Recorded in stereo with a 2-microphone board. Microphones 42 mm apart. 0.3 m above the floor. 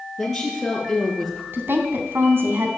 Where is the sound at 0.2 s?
5° left (ahead or behind), 5.5 m; by 1.4 s centre (ahead or behind), 5 m.